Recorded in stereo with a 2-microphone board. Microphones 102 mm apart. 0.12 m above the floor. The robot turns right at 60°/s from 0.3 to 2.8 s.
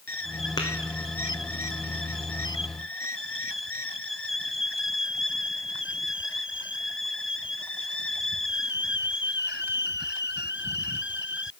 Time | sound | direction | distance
0.6 | tapping | 40° left (ahead or behind) | 2 m